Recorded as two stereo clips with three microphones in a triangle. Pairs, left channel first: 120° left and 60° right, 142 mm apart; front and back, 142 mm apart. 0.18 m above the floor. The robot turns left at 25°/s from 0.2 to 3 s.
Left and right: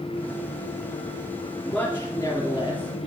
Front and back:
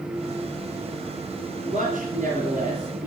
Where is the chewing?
No chewing in this recording.